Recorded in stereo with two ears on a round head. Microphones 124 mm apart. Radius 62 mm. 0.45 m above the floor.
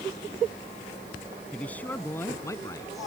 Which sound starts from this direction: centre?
A man speaking, at 1.5 s.